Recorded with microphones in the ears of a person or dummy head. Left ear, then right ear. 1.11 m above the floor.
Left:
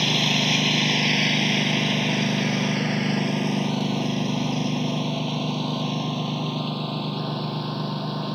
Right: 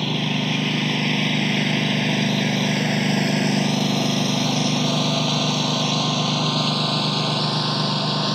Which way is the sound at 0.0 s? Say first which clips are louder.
Left 3 dB; 15° left (ahead or behind).